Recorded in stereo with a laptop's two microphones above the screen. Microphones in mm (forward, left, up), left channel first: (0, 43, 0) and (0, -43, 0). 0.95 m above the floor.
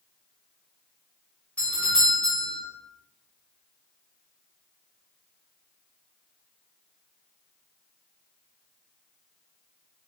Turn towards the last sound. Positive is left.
turn(degrees=15)  # may be behind; listen again after turning